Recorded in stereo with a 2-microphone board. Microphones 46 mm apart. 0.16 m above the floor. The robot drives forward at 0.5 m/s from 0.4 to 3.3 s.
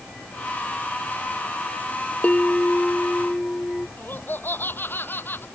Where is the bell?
30° left (ahead or behind); by 3.9 s 25° left (ahead or behind).